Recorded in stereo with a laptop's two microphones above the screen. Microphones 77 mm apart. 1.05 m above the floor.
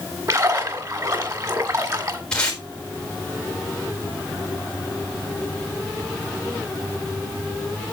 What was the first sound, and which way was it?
A splash, 50° right (ahead or behind).